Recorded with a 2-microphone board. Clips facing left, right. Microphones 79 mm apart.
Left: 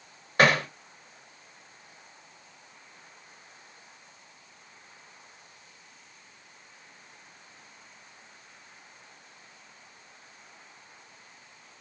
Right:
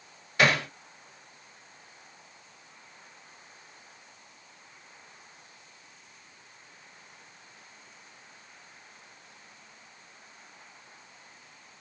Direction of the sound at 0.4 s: 45° left (ahead or behind).